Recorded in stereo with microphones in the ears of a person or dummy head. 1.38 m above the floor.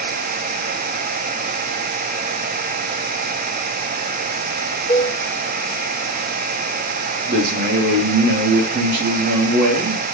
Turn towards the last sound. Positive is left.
turn(degrees=-55)  # may be behind; listen again after turning